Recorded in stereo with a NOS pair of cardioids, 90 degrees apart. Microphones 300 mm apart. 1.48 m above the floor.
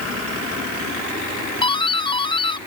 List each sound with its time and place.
1.6 s a doorbell: 15° left